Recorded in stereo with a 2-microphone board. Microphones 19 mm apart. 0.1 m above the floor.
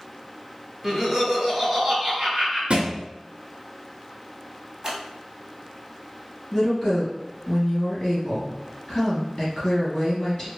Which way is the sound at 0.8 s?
5° right (ahead or behind).